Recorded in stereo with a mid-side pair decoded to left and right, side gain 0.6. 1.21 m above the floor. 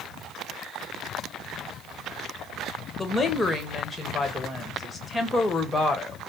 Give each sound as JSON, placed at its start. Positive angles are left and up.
{"t": 3.0, "sound": "a woman speaking", "azimuth_deg": 20, "distance_m": 1.4}